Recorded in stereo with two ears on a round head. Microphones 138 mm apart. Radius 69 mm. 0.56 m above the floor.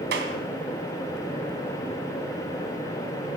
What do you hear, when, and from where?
0.1 s a clap: 80° right, 3 m